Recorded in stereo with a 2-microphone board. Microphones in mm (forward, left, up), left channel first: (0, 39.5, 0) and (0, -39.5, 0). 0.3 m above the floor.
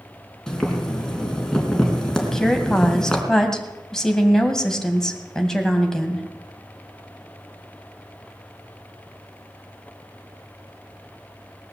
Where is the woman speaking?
5° left (ahead or behind), 2.5 m.